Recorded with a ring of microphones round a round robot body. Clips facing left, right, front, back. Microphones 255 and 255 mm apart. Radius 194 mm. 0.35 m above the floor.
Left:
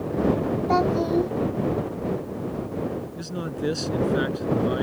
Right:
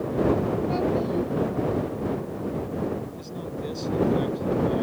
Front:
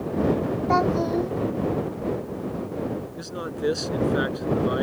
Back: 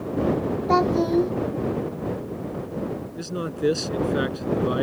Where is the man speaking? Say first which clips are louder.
Left 3 dB, back 3 dB; 125° left.